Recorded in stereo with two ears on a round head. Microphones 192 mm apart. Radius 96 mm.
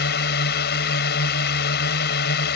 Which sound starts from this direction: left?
A drone, at 0.0 s.